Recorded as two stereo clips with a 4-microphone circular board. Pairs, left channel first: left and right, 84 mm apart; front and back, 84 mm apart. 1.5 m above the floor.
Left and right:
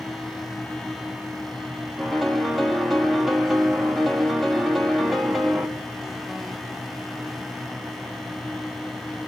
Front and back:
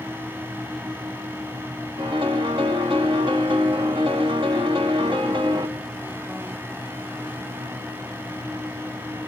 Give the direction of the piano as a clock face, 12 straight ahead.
6 o'clock.